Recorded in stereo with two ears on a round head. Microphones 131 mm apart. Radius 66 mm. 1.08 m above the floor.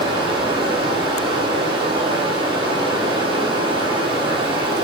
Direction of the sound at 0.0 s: 35° right (ahead or behind).